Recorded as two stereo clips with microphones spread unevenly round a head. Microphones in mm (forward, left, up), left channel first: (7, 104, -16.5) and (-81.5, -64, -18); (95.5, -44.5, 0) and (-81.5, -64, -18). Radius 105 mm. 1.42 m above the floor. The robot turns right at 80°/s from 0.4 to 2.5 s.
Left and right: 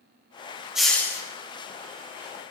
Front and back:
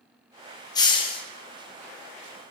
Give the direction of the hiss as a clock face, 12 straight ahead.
1 o'clock.